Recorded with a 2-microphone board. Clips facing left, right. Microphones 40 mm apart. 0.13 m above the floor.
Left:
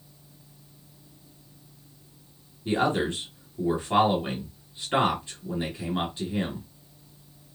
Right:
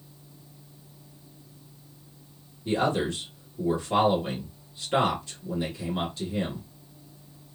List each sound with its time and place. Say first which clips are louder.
2.6 s a man speaking: left 1 dB; 30° left (ahead or behind), 1.7 m